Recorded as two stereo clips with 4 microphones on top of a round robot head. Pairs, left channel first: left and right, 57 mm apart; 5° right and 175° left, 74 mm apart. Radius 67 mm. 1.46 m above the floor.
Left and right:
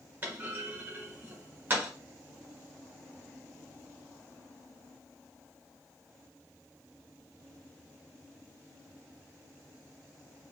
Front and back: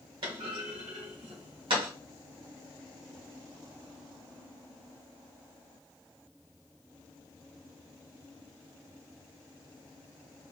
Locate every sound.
0.2 s a clunk: 150° right, 1.4 m